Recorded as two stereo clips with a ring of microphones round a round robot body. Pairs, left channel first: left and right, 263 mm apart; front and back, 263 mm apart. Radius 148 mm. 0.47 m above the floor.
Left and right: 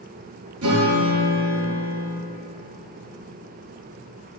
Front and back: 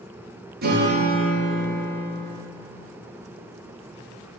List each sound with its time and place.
0.6 s a guitar: 130° right, 5 m